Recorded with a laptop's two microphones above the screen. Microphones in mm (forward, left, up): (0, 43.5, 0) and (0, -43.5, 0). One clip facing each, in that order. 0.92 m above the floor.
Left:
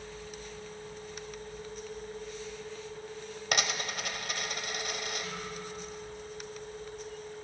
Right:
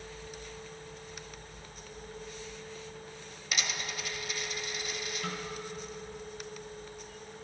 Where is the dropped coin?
60° left (ahead or behind), 1.3 m.